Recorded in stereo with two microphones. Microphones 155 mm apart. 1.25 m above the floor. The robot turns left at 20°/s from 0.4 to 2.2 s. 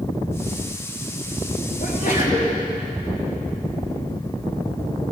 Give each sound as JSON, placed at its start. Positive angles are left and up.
{"t": 1.8, "sound": "a sneeze", "side_deg": 65, "distance_m": 4.0}